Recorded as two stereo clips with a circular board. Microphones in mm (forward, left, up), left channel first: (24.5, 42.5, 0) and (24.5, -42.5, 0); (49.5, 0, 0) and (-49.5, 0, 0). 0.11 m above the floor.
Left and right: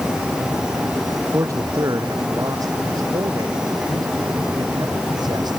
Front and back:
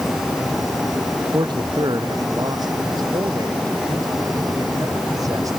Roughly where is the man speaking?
Behind right.